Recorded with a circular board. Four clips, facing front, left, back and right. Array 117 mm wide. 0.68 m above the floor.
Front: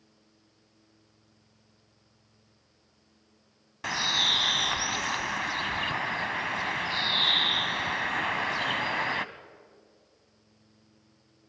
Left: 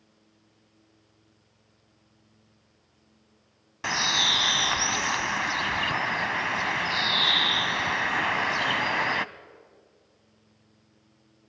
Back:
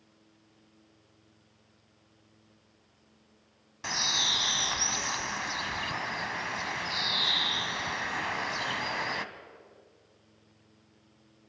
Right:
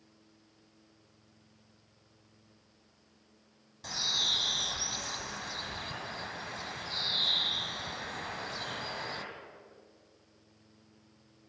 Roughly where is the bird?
Left.